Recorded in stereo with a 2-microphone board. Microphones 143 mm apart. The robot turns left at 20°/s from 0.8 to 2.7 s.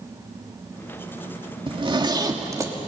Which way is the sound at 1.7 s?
40° right (ahead or behind).